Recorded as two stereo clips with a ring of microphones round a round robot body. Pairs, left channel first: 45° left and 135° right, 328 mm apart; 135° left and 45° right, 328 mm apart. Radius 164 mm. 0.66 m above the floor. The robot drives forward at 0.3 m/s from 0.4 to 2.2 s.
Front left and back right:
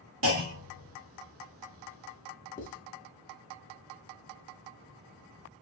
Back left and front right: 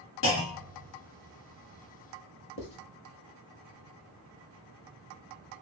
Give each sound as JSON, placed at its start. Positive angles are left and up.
{"t": 0.2, "sound": "a clunk", "azimuth_deg": 180, "distance_m": 1.3}
{"t": 2.6, "sound": "writing", "azimuth_deg": 100, "distance_m": 1.0}